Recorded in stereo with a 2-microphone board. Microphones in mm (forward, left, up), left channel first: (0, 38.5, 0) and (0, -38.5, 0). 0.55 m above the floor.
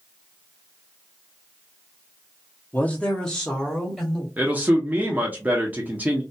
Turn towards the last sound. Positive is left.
turn(degrees=-20)  # may be behind; listen again after turning